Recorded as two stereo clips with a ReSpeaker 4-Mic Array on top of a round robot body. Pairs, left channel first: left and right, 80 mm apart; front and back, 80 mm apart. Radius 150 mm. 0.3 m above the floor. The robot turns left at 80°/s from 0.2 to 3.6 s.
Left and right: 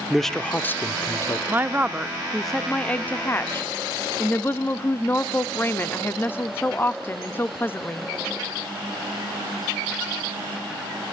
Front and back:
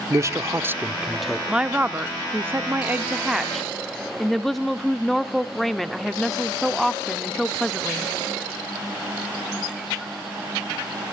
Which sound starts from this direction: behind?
A man speaking, at 0.1 s.